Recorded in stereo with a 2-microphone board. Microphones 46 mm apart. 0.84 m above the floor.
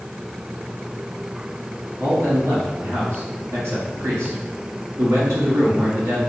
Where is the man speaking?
75° right (ahead or behind), 1.6 m.